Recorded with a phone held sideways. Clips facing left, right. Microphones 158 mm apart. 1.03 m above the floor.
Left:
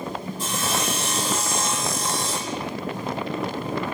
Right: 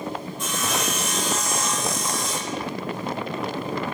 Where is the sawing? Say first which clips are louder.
Even; 35° left (ahead or behind), 8.5 m.